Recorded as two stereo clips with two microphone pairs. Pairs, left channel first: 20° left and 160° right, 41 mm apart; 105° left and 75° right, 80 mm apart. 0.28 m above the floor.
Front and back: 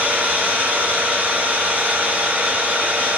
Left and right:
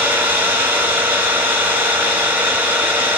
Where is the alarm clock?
No alarm clock in this recording.